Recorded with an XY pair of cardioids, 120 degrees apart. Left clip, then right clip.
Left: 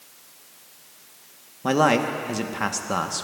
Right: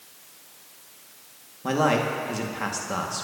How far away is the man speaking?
About 1.1 m.